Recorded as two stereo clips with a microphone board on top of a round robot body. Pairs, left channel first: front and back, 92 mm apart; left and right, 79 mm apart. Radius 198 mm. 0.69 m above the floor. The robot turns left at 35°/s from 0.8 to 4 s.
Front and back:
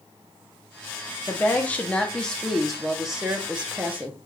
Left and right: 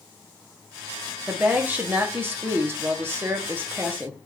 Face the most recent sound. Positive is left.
turn(degrees=-135)